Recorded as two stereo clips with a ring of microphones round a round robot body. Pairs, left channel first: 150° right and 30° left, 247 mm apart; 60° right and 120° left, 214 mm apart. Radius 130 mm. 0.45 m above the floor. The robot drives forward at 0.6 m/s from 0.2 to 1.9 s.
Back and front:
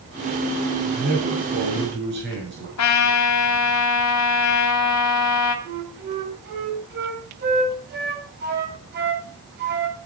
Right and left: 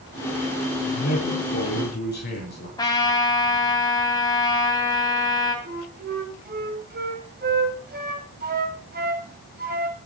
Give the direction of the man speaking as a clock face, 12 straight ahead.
1 o'clock.